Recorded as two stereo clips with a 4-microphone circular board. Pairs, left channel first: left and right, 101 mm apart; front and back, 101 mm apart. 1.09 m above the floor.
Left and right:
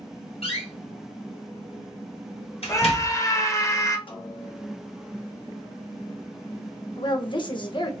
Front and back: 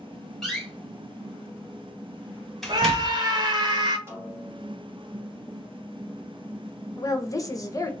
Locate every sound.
0.4 s a door slam: 90° left, 1.7 m
2.7 s a scream: 140° left, 1.2 m
4.1 s a snare drum: 115° left, 2 m
7.0 s a woman speaking: 55° left, 1.1 m